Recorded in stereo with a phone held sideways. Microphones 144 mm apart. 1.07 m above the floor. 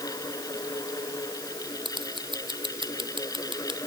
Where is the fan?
25° left (ahead or behind).